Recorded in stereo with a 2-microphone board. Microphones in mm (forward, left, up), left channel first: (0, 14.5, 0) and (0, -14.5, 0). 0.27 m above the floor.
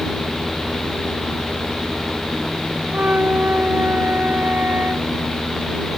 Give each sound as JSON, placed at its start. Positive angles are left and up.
{"t": 2.9, "sound": "a flute", "side_deg": -75}